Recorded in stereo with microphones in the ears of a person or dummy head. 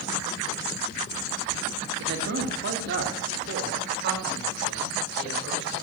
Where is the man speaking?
60° right (ahead or behind), 1.8 m; by 5.8 s 55° right (ahead or behind), 6 m.